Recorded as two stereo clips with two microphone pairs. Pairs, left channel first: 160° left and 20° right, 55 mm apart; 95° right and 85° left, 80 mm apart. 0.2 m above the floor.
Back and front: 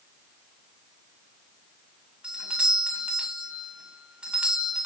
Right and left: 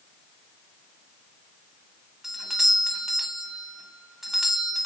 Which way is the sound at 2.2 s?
10° left.